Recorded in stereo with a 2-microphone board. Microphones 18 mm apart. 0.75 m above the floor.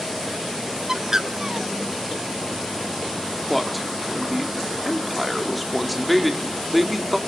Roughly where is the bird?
Right.